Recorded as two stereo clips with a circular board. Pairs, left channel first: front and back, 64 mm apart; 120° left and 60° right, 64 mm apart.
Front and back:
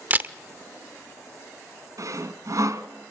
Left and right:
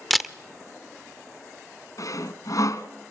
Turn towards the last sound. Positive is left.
turn(degrees=150)